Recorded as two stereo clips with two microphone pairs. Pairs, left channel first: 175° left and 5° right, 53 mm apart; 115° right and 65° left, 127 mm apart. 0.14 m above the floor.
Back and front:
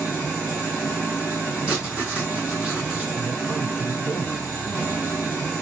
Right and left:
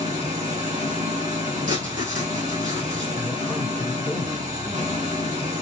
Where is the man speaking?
35° right, 1.1 m.